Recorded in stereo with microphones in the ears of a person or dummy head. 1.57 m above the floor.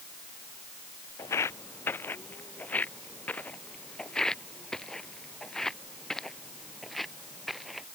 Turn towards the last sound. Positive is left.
turn(degrees=0)  # may be behind; listen again after turning